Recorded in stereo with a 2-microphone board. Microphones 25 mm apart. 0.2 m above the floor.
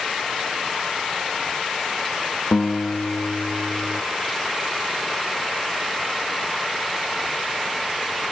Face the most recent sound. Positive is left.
turn(degrees=85)